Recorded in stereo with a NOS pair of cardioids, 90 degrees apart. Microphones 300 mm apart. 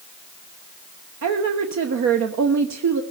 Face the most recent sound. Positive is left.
turn(degrees=-60)